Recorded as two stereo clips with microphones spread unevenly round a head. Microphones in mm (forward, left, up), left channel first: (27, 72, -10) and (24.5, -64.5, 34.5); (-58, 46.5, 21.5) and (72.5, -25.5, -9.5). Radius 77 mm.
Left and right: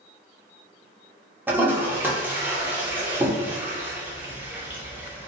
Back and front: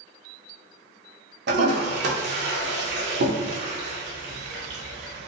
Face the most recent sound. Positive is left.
turn(degrees=-10)